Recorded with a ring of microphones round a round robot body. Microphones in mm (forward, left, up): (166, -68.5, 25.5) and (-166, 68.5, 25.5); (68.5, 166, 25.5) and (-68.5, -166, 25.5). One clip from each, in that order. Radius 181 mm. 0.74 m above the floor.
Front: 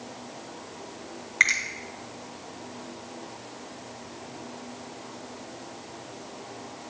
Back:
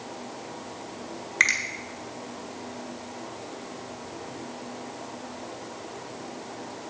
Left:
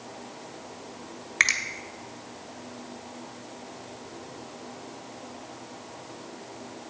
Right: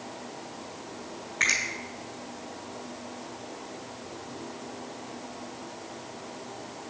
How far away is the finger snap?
About 1.5 m.